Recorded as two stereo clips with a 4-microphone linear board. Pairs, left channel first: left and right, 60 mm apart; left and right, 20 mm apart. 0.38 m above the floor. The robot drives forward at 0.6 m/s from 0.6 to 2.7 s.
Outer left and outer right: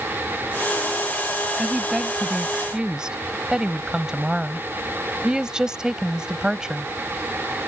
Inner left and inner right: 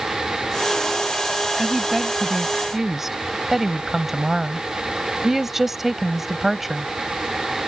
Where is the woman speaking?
10° right (ahead or behind).